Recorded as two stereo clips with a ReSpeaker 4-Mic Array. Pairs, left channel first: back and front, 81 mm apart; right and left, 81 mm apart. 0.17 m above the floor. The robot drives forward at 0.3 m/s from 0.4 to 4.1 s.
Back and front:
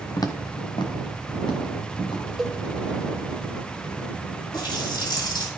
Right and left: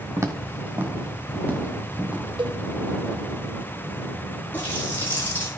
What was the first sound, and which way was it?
Footsteps, 140° left.